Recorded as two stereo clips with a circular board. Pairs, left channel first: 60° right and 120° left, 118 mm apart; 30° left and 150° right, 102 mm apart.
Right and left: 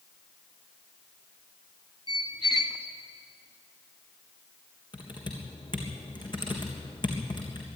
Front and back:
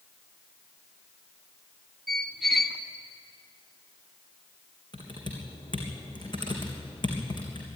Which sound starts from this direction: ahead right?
A squeak, at 2.1 s.